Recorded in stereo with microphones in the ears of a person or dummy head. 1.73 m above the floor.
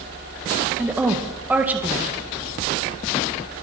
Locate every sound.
0.8 s a woman speaking: 10° right (ahead or behind), 2.0 m